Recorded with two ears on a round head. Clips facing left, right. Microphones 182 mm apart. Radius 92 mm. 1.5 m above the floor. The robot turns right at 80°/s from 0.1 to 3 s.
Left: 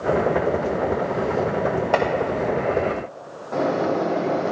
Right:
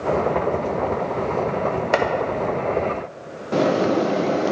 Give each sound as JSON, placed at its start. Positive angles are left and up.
{"t": 1.9, "sound": "chopping", "side_deg": -20, "distance_m": 0.7}
{"t": 3.5, "sound": "a bird", "side_deg": -35, "distance_m": 0.5}